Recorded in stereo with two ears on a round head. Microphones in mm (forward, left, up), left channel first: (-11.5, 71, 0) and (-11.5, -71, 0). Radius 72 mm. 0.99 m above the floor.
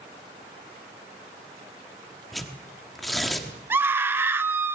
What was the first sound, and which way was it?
Tearing paper, centre (ahead or behind).